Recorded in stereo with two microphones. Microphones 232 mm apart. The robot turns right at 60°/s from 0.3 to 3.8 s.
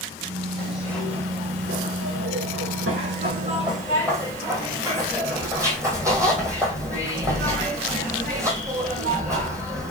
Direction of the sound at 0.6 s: 155° left.